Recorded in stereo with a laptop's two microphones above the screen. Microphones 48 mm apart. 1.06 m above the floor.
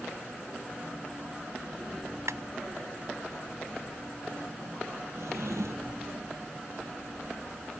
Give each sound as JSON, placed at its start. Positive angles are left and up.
{"t": 2.3, "sound": "a clap", "side_deg": -85}
{"t": 5.2, "sound": "a drawer", "side_deg": -80}